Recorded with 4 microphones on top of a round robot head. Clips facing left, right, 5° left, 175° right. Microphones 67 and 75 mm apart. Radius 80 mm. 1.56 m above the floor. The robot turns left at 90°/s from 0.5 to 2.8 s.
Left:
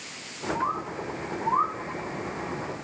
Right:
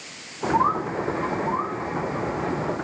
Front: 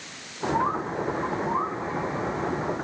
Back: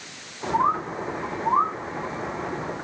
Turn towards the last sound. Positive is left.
turn(degrees=45)